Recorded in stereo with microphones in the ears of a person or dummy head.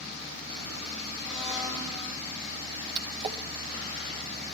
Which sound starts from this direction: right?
A splash, at 3.0 s.